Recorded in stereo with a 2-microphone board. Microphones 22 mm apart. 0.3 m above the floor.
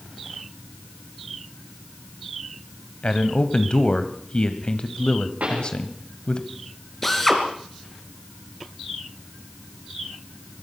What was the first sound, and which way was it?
A man speaking, 40° left (ahead or behind).